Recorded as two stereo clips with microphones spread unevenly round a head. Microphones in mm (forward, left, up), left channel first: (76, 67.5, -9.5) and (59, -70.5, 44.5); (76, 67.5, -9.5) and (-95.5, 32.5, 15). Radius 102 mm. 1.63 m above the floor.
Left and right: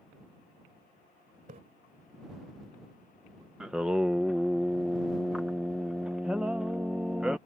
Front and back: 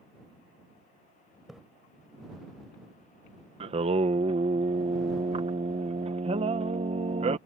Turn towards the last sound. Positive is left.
turn(degrees=-150)